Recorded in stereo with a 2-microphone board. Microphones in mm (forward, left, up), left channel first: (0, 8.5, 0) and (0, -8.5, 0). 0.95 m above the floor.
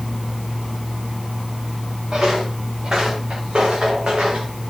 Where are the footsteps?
75° right (ahead or behind), 5.5 m; by 4.7 s 65° right (ahead or behind), 6 m.